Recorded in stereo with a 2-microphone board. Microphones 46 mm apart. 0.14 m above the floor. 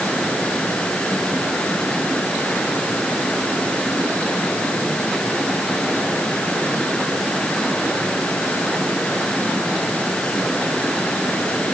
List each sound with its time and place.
Only background noise.